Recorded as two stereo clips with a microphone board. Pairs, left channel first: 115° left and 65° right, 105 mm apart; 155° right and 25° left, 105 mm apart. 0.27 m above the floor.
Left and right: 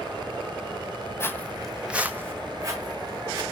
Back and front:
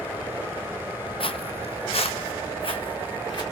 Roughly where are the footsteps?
Behind.